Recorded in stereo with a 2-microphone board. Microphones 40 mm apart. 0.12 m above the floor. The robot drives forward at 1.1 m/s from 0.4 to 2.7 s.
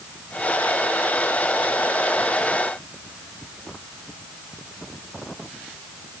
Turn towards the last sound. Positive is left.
No sound to turn to.